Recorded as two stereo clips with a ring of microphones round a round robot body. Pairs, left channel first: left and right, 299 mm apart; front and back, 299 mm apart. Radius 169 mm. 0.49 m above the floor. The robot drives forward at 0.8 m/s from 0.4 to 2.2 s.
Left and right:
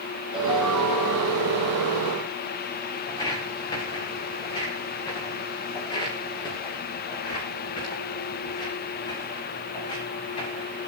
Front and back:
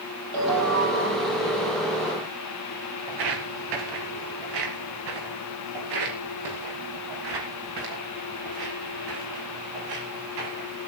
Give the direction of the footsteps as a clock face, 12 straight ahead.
6 o'clock.